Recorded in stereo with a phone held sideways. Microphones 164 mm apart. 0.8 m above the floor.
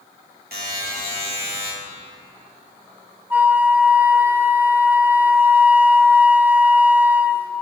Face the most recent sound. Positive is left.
turn(degrees=-10)  # may be behind; listen again after turning